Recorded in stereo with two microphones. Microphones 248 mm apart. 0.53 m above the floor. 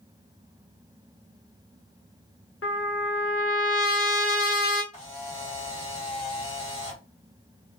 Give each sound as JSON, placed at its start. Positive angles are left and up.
{"t": 2.6, "sound": "a trumpet", "side_deg": 60, "distance_m": 0.5}
{"t": 4.9, "sound": "a camera shutter", "side_deg": 25, "distance_m": 1.3}